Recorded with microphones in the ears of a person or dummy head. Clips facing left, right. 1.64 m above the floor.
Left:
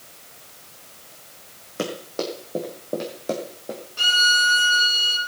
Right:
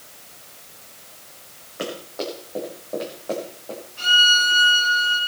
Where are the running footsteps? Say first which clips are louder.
Left 2 dB; 45° left (ahead or behind), 3.5 m; by 3.8 s 30° left (ahead or behind), 3 m.